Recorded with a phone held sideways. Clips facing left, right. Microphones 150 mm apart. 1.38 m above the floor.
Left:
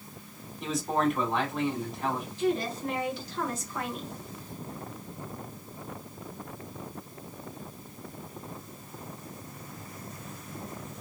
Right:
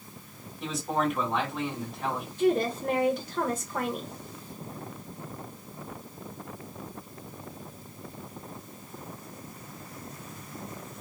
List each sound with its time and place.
0.6 s a man speaking: centre (ahead or behind), 1.5 m
2.4 s a woman speaking: 50° right (ahead or behind), 1.0 m